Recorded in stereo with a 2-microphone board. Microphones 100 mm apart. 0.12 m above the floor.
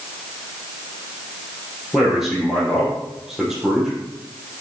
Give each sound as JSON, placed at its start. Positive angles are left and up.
{"t": 1.9, "sound": "a man speaking", "side_deg": -5, "distance_m": 4.0}